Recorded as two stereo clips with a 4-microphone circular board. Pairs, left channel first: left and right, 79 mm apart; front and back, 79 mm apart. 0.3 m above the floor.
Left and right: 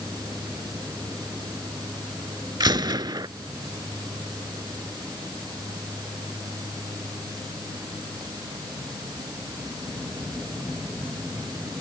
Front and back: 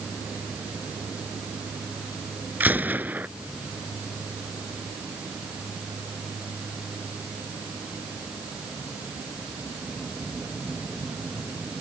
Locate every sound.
2.6 s a gunshot: 115° right